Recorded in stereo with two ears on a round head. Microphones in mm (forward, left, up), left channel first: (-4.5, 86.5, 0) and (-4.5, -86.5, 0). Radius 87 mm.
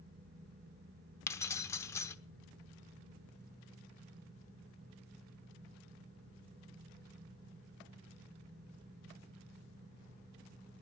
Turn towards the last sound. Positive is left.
turn(degrees=15)  # may be behind; listen again after turning